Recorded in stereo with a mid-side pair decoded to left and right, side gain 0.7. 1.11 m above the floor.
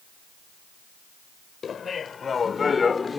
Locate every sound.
1.6 s laughter: 30° left; by 3.2 s 20° left